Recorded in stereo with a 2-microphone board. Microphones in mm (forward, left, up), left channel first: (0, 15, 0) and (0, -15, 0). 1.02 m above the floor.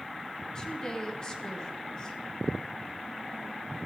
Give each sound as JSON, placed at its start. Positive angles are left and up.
{"t": 0.6, "sound": "a woman speaking", "side_deg": 25, "distance_m": 1.7}